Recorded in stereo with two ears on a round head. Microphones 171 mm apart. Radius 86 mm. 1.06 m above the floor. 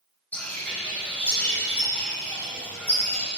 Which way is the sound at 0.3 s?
10° left (ahead or behind).